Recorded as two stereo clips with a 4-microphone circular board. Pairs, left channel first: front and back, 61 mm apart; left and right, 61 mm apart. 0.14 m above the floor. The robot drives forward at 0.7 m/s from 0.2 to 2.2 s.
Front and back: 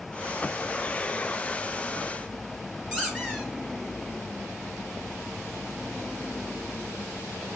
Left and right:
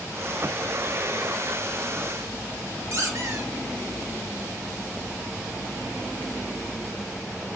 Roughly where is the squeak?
Right.